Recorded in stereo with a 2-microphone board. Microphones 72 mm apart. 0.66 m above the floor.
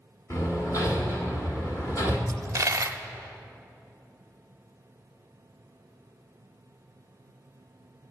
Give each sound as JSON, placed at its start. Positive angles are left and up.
{"t": 0.3, "sound": "hammering", "side_deg": 50, "distance_m": 1.9}
{"t": 2.3, "sound": "a dropped coin", "side_deg": -50, "distance_m": 0.5}